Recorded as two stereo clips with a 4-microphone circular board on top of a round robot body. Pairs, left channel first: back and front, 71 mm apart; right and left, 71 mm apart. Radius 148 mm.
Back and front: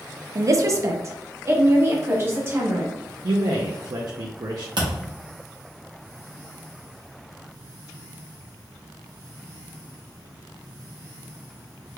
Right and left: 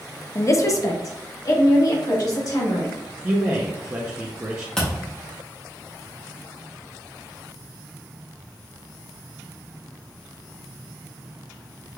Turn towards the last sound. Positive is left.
turn(degrees=-10)